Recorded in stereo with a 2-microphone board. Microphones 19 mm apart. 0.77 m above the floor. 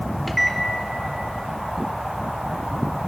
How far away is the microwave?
About 1.7 m.